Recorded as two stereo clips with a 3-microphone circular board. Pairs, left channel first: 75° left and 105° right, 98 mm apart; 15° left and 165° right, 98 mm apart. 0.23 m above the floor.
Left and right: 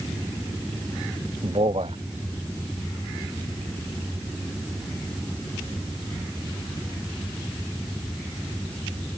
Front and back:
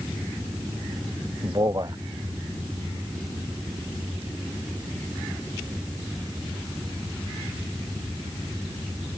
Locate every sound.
1.4 s a man speaking: 115° right